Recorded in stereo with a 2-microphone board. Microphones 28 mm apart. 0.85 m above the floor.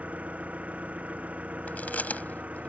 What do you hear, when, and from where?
0.0 s an engine running: 55° right (ahead or behind)
1.7 s chewing: 80° left